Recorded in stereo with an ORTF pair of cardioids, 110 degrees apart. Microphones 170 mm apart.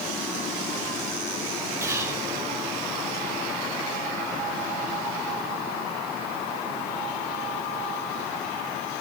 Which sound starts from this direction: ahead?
Whispering, at 1.8 s.